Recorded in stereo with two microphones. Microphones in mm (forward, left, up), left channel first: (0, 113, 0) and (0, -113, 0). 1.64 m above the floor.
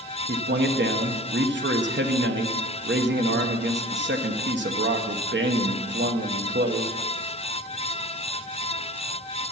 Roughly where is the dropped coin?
I don't hear a dropped coin.